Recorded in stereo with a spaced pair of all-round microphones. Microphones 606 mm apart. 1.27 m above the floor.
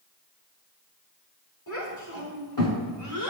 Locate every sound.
1.7 s a child speaking: 30° left (ahead or behind), 5 m; by 3.3 s 40° left (ahead or behind), 4 m